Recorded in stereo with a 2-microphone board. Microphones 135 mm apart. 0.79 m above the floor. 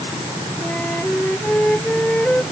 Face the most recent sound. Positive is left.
turn(degrees=10)  # may be behind; listen again after turning